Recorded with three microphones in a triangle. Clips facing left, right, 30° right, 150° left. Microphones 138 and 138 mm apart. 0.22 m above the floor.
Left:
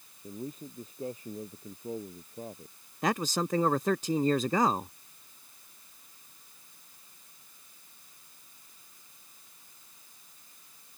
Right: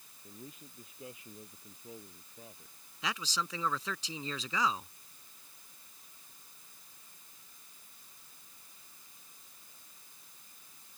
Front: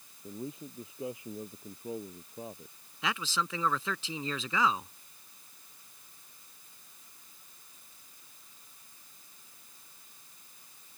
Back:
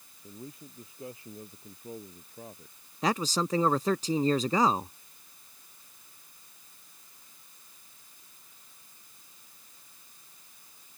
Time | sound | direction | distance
0.2 | a man speaking | 40° left | ?
3.0 | a man speaking | 110° left | ?